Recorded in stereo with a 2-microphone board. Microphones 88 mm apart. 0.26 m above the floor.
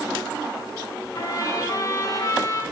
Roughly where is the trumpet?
Left.